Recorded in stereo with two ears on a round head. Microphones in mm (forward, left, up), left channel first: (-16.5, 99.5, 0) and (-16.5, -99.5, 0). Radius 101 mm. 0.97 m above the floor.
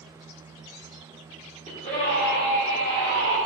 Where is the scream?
35° left (ahead or behind), 3 m.